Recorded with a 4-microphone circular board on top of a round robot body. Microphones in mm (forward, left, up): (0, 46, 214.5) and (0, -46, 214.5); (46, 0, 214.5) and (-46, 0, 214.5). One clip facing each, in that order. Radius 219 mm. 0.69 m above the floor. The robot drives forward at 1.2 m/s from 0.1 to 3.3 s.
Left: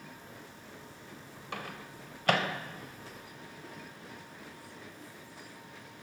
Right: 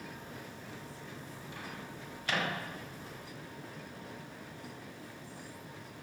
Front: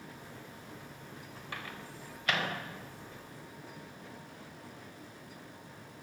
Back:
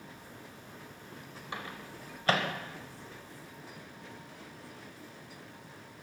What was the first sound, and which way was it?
A microwave, 110° left.